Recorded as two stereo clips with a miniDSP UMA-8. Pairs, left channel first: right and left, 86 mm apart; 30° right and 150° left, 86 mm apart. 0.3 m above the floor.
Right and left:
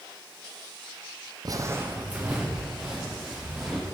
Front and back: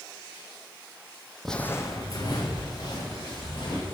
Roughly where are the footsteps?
Ahead left.